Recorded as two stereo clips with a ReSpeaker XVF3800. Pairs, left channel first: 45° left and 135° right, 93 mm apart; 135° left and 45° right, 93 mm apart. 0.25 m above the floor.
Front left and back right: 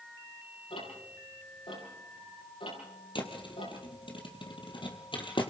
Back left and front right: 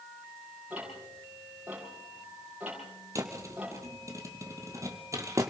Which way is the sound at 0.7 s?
30° left.